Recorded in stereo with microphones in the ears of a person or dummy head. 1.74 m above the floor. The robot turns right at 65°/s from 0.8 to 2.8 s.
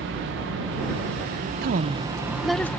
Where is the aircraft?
60° right (ahead or behind); by 2.8 s 10° left (ahead or behind).